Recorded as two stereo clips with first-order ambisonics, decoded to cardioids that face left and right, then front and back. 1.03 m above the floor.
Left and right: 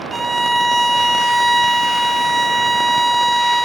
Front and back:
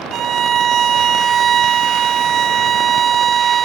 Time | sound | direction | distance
0.1 | a violin | 160° right | 0.5 m